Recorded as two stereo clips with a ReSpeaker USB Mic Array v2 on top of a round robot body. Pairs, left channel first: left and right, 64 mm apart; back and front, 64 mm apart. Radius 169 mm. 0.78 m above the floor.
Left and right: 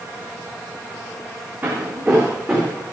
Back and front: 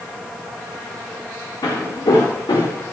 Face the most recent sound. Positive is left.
turn(degrees=-175)